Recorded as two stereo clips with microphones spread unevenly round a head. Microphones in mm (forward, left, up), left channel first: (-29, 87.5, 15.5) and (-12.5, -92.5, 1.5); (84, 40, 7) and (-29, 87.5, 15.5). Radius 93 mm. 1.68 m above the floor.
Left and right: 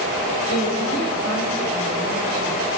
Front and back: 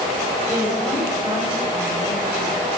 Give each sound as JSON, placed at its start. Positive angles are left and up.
{"t": 0.5, "sound": "a woman speaking", "azimuth_deg": 70, "distance_m": 6.5}